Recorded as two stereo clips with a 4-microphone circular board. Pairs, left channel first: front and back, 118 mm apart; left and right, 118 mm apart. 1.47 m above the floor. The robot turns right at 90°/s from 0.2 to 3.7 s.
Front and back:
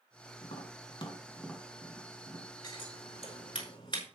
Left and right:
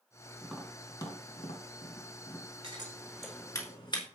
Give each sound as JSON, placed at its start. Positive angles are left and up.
{"t": 0.4, "sound": "tapping", "azimuth_deg": -15, "distance_m": 3.0}
{"t": 2.6, "sound": "scissors", "azimuth_deg": -55, "distance_m": 5.0}